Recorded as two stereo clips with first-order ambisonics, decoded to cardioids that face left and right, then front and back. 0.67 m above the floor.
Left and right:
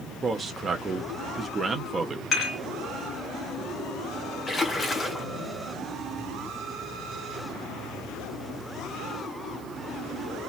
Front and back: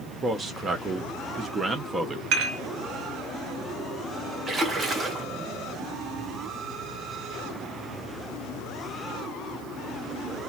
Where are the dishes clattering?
155° left, 1.6 m.